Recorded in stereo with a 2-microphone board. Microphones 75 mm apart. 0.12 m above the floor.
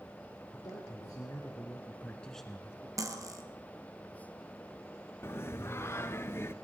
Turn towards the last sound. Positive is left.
turn(degrees=35)  # may be behind; listen again after turning